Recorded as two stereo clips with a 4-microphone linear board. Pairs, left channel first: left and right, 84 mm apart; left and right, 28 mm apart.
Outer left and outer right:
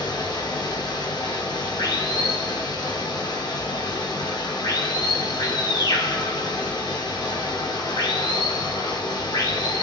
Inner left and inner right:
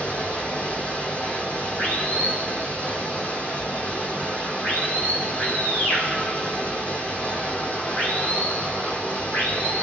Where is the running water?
55° left (ahead or behind), 1.7 m.